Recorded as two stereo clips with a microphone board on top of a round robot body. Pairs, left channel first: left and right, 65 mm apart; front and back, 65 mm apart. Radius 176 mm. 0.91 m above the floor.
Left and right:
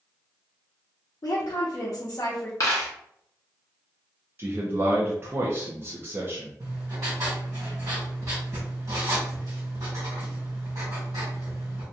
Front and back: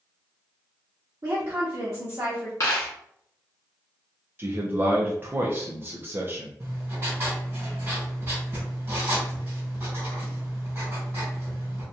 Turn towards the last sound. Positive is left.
turn(degrees=-125)